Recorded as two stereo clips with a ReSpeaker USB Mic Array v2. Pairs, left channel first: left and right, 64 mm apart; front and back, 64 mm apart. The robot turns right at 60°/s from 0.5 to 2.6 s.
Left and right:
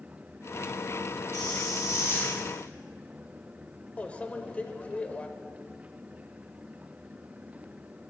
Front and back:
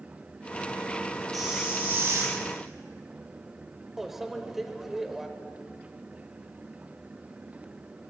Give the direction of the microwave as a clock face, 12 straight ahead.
9 o'clock.